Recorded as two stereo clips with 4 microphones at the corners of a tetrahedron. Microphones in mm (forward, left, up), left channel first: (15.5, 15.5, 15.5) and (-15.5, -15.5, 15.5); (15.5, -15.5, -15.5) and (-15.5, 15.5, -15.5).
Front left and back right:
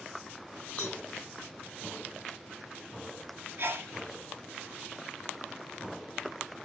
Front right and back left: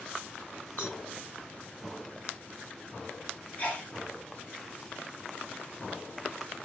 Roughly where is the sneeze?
Right.